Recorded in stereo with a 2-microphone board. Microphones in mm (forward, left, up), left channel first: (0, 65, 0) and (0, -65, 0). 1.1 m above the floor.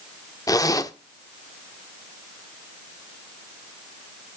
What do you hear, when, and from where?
0.5 s a zipper: 30° left (ahead or behind), 0.7 m